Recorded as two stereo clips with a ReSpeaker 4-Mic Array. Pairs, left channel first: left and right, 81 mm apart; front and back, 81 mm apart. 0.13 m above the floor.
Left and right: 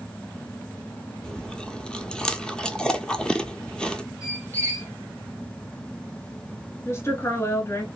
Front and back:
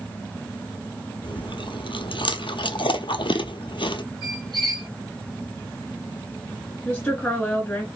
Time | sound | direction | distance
1.2 | chewing | 10° left | 0.5 m
4.2 | a squeak | 150° left | 2 m
6.8 | a woman speaking | 60° left | 1.2 m